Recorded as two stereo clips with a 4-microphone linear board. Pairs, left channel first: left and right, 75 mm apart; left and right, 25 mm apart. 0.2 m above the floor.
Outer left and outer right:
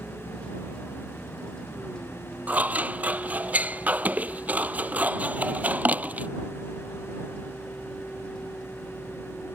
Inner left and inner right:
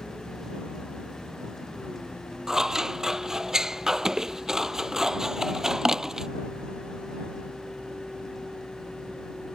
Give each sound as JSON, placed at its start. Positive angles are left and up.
{"t": 0.0, "sound": "a vehicle", "side_deg": 10}
{"t": 2.5, "sound": "scissors", "side_deg": -20}